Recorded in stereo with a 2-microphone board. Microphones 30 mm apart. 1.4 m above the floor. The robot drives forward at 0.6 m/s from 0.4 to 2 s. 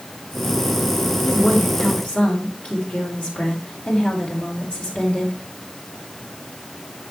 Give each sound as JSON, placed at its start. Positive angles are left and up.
{"t": 1.2, "sound": "a woman speaking", "side_deg": 50, "distance_m": 5.0}